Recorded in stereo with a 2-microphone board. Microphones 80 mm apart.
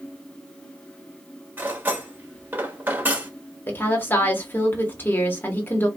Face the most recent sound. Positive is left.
turn(degrees=25)  # may be behind; listen again after turning